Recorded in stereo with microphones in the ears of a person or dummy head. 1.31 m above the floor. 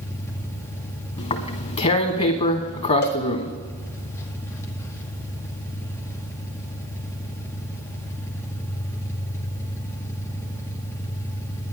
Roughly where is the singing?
No singing in this recording.